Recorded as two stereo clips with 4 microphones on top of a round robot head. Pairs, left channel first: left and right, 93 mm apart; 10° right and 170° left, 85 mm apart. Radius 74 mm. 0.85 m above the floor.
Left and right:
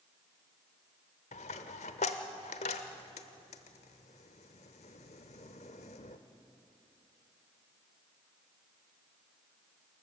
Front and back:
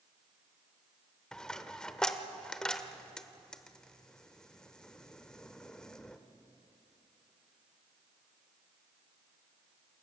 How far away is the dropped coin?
About 0.9 m.